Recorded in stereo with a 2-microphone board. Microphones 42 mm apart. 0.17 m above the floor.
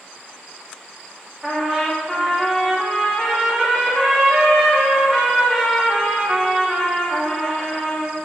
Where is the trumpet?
10° right (ahead or behind), 6 m.